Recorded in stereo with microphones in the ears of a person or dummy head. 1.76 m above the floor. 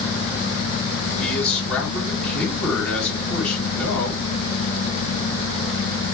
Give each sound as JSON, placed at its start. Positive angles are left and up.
{"t": 1.2, "sound": "a man speaking", "side_deg": 5, "distance_m": 3.0}